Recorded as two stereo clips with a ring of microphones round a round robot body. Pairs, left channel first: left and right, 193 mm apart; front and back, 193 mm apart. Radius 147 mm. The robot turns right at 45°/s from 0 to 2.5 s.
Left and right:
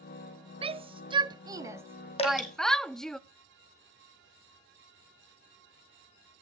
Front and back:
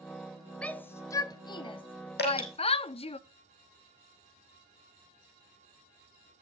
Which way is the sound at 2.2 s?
30° left.